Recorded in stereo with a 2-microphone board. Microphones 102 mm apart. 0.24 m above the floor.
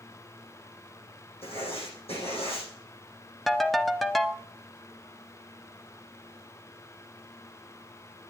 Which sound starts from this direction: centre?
A ringtone, at 3.5 s.